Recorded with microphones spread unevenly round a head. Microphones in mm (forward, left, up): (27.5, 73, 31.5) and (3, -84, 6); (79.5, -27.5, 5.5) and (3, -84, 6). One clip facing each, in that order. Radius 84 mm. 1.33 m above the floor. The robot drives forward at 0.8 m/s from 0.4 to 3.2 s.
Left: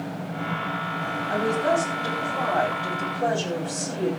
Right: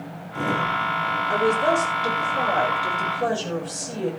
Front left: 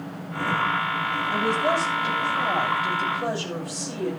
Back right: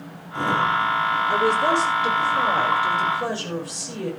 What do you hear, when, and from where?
1.3 s a woman speaking: 145° right, 5.5 m; by 4.1 s 150° right, 7 m